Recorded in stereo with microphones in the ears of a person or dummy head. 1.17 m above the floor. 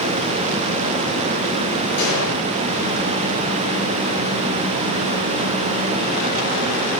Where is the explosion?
65° left (ahead or behind), 6 m.